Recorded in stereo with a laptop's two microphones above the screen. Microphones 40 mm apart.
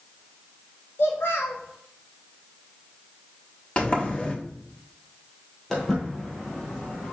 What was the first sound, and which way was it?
A child speaking, 75° left (ahead or behind).